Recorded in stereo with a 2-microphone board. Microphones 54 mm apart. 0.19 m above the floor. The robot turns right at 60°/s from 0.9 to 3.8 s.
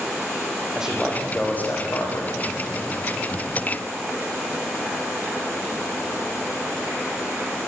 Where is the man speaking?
10° right, 7 m; by 2.3 s 75° left, 7 m.